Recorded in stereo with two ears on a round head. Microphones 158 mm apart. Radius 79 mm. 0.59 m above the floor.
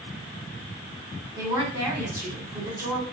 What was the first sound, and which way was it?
A woman speaking, 15° right (ahead or behind).